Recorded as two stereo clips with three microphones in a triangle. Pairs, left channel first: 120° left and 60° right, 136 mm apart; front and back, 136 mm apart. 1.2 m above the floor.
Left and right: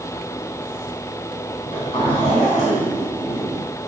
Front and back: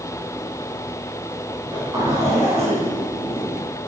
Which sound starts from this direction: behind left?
A zipper, at 1.6 s.